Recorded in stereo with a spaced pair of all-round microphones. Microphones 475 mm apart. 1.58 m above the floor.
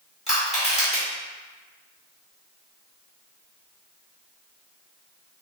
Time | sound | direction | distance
0.3 | crushing | 10° left (ahead or behind) | 1.8 m